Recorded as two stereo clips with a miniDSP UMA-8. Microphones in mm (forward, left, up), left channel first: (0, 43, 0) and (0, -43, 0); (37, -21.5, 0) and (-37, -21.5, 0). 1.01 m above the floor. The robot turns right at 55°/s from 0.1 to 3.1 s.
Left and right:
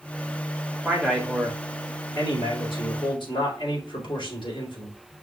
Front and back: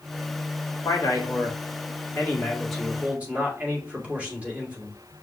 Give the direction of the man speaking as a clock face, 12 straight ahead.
12 o'clock.